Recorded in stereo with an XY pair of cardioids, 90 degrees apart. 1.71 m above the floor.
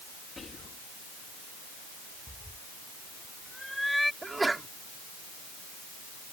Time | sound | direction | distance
0.4 | whispering | 40° left | ?
2.3 | a cat meowing | 5° left | ?
4.2 | a sneeze | 20° right | ?